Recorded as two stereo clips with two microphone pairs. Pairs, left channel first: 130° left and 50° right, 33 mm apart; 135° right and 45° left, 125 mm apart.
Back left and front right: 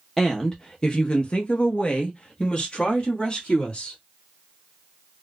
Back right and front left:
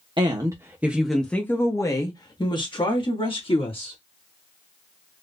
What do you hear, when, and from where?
0.2 s a woman speaking: 60° left, 0.7 m; by 4.0 s 170° right, 1.9 m